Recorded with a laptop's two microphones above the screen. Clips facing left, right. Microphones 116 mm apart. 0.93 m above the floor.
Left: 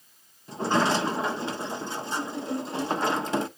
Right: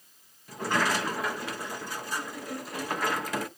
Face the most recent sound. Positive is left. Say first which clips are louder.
# left 4 dB
turn(degrees=25)  # may be behind; listen again after turning